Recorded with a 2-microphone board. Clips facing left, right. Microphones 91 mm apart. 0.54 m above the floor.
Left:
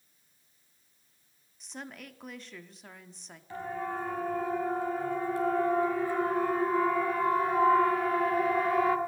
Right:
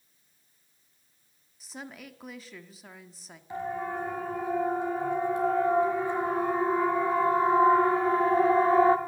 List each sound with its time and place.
1.6 s a woman speaking: 5° right (ahead or behind), 1.2 m
3.5 s a siren: 20° right (ahead or behind), 6.5 m; by 9.0 s 30° right (ahead or behind), 2 m